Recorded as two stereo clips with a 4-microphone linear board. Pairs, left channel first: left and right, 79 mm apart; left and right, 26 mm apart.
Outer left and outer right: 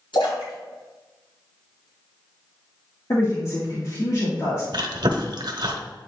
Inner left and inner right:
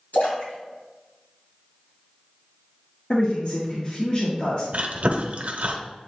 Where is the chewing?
70° right (ahead or behind), 1.1 m.